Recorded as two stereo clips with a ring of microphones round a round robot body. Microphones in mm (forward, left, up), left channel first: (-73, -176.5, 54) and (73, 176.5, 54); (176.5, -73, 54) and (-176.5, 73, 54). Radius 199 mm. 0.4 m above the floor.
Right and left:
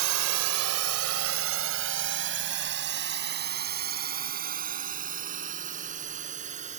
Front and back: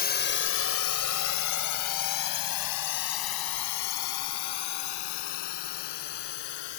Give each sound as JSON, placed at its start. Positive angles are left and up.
{"t": 0.0, "sound": "a drone", "azimuth_deg": 40}